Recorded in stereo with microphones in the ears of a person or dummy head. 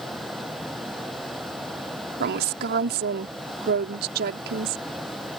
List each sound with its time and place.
2.2 s a woman speaking: 60° right (ahead or behind)